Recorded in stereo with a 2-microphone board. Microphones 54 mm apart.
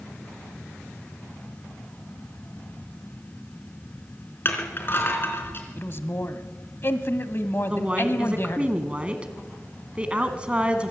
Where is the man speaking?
45° left (ahead or behind), 1.4 m.